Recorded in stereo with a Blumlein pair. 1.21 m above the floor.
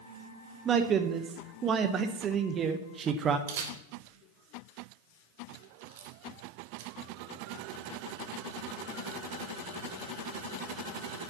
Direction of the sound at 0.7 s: 25° right.